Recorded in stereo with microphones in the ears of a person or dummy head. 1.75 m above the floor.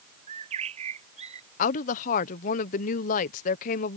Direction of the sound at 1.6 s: 45° left (ahead or behind).